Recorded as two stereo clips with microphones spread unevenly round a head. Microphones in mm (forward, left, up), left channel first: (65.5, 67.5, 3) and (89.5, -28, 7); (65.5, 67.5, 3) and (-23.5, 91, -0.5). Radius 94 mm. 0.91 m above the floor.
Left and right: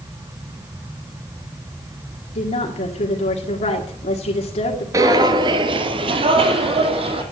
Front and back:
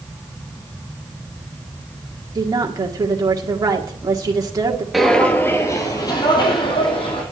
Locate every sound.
2.4 s a woman speaking: 115° left, 1.8 m
4.9 s footsteps: 105° right, 1.0 m; by 7.2 s 60° right, 2.5 m